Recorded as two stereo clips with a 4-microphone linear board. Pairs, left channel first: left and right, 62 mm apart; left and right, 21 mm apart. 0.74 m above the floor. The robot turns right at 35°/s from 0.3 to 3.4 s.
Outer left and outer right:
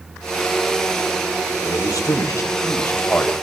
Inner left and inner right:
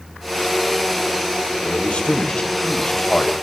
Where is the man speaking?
95° left, 4 m; by 3.3 s 155° left, 4 m.